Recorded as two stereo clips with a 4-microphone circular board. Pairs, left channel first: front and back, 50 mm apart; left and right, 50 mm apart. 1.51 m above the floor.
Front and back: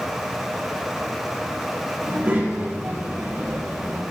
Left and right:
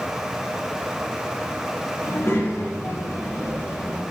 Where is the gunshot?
I don't hear a gunshot.